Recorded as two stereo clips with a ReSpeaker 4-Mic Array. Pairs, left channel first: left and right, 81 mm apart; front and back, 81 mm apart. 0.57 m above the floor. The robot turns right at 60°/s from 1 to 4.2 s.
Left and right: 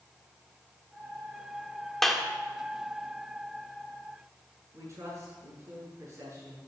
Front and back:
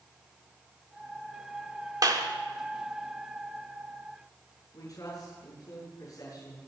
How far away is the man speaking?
About 6.5 m.